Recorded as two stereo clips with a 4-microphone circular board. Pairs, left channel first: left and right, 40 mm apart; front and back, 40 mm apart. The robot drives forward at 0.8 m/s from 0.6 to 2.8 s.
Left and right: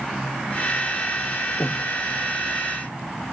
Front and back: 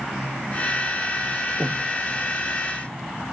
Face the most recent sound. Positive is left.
turn(degrees=150)